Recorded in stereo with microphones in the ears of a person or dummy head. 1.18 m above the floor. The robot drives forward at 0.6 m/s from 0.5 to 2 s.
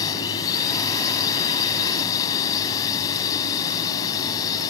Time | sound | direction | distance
0.0 | a drone | 15° left (ahead or behind) | ?